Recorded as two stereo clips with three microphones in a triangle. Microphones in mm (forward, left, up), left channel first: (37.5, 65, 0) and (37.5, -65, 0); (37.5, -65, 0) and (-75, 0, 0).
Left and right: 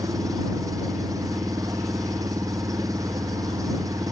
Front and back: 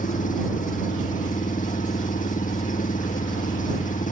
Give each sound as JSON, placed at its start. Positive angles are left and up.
{"t": 0.0, "sound": "an engine running", "azimuth_deg": -25}